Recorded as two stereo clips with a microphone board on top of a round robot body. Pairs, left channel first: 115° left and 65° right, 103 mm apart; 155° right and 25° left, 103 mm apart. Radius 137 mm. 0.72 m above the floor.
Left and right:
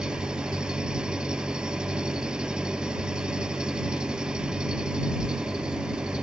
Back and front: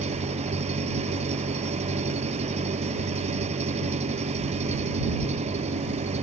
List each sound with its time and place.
0.0 s an engine running: 15° left